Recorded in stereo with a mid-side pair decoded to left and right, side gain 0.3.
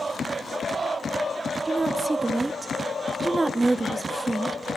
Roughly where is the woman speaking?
Ahead right.